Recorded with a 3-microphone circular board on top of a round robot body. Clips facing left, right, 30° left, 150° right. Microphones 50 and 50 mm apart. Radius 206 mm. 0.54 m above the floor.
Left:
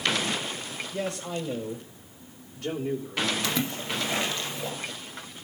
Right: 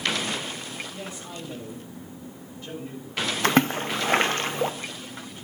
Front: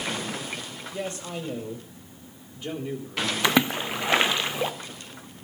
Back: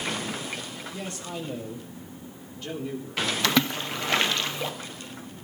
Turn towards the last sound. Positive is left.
turn(degrees=-45)